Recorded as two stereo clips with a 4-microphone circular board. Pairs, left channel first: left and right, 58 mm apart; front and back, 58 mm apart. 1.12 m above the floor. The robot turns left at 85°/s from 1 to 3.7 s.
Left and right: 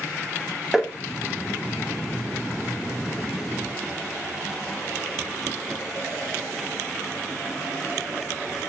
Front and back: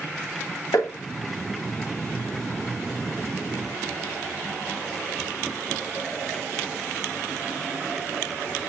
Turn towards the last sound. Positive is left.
turn(degrees=125)